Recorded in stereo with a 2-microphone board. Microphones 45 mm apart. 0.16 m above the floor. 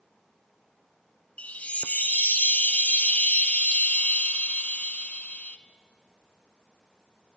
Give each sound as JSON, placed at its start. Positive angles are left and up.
{"t": 1.4, "sound": "a chime", "side_deg": 30, "distance_m": 1.0}